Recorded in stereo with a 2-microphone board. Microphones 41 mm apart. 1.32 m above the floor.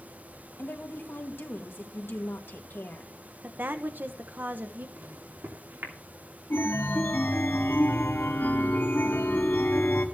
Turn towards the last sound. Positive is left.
turn(degrees=65)  # may be behind; listen again after turning